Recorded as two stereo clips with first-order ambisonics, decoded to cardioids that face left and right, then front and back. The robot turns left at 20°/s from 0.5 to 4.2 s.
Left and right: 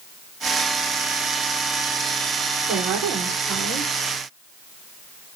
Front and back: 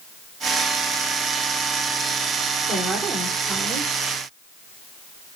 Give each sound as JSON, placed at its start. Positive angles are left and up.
{"t": 2.7, "sound": "a woman speaking", "azimuth_deg": -100, "distance_m": 5.5}